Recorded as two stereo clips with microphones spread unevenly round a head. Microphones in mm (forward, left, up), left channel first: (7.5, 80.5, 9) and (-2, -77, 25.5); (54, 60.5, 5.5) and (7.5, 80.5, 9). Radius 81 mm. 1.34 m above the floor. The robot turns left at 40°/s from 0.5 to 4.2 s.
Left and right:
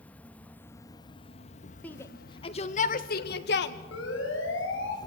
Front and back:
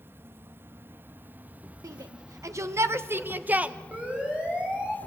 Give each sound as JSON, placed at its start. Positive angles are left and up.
{"t": 0.0, "sound": "an insect", "azimuth_deg": 170, "distance_m": 0.8}
{"t": 1.8, "sound": "a shout", "azimuth_deg": 165, "distance_m": 1.6}
{"t": 3.9, "sound": "a siren", "azimuth_deg": 100, "distance_m": 6.5}